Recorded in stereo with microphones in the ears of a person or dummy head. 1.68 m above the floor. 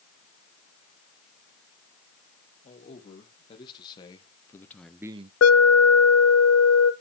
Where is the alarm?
85° left, 1.6 m.